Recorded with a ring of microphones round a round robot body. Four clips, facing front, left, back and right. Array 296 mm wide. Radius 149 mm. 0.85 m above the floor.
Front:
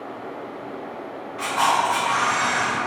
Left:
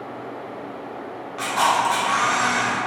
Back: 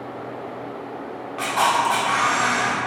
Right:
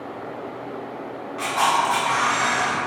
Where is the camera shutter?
170° left, 0.6 m.